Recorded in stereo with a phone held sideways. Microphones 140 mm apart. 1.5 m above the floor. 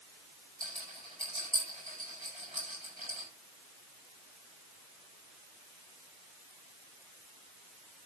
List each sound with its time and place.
0.6 s a rattle: 40° left (ahead or behind), 10 m